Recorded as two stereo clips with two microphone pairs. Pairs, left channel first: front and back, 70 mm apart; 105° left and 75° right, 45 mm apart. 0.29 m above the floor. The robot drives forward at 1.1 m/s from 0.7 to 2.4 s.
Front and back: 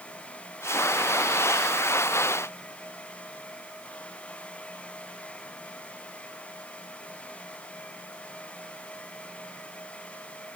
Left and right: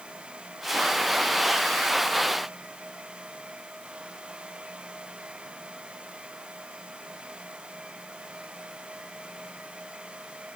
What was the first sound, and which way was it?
Only background noise.